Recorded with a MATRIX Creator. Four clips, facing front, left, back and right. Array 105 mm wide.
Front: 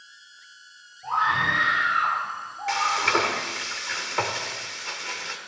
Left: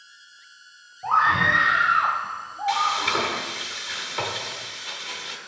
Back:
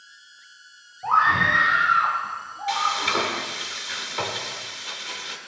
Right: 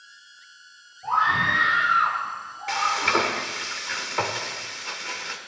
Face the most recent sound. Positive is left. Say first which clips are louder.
# even, front 1 dB
turn(degrees=-40)